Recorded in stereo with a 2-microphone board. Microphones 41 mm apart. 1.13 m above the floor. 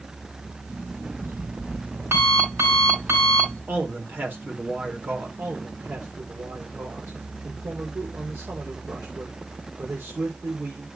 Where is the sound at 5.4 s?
85° right, 3 m.